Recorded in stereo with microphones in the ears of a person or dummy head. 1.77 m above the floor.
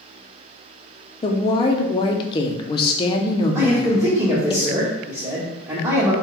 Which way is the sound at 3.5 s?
10° right (ahead or behind).